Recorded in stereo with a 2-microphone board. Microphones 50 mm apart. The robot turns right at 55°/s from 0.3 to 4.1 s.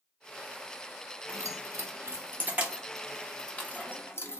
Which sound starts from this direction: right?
Keys jangling, at 1.3 s.